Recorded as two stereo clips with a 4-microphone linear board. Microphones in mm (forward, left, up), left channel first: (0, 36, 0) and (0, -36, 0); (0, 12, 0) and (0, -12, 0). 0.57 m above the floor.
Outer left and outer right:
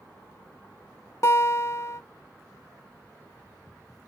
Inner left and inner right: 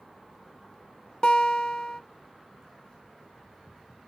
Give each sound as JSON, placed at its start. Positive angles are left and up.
{"t": 1.2, "sound": "a guitar", "side_deg": 40, "distance_m": 0.7}